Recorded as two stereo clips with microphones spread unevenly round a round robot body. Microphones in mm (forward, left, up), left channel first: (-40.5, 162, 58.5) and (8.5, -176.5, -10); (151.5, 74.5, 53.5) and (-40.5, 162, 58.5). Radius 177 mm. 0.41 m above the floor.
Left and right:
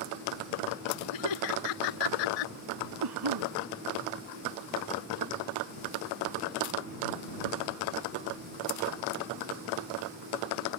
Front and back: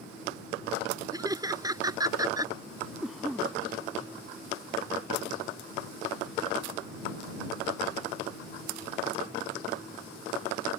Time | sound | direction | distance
1.1 | laughter | 85° left | ?
3.0 | a cough | 115° right | ?